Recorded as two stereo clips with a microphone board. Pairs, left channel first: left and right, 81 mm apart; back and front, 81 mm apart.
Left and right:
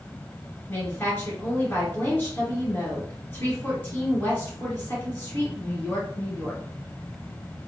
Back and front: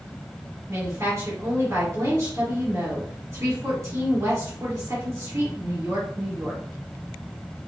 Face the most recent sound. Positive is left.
turn(degrees=35)